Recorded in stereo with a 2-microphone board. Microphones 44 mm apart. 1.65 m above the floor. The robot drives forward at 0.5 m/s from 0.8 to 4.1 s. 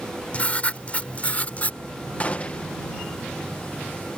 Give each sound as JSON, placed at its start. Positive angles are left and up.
{"t": 0.3, "sound": "writing", "side_deg": 30}
{"t": 2.2, "sound": "a gunshot", "side_deg": 30}